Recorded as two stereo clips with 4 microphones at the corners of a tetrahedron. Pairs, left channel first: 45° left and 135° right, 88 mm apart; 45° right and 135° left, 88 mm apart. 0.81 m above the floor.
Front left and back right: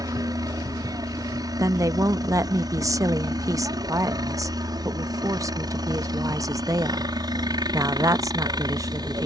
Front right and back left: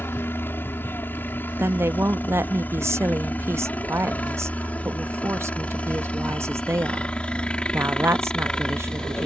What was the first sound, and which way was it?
A helicopter, 105° right.